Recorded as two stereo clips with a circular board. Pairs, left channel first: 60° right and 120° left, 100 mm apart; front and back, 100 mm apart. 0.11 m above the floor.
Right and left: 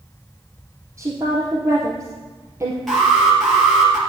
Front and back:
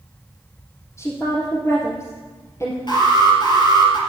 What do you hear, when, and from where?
1.0 s a woman speaking: 60° left, 3 m
2.9 s an alarm: 30° left, 3 m